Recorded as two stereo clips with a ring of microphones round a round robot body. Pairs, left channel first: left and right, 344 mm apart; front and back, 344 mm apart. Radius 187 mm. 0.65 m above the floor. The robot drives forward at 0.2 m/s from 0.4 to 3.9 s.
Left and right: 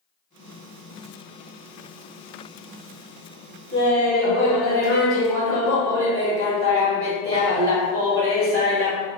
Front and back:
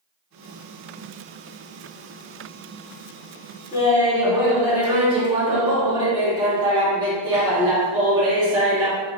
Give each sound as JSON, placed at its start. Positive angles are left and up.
{"t": 3.7, "sound": "laughter", "azimuth_deg": -105, "distance_m": 1.7}